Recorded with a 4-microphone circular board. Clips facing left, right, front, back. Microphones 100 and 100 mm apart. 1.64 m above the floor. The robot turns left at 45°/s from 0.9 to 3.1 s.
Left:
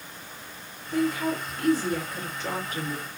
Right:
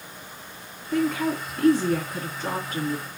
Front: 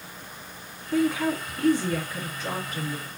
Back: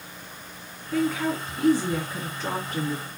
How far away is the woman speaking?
About 3 m.